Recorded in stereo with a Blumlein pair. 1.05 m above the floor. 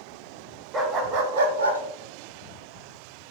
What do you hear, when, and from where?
0.7 s a dog barking: 20° right, 1.3 m; by 1.8 s 80° right, 1.0 m